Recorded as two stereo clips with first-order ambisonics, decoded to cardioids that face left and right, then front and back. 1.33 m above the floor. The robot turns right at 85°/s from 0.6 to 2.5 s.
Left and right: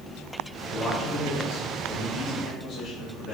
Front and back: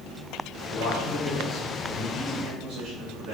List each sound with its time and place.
0.7 s a man speaking: straight ahead, 2 m; by 3.3 s 155° left, 2 m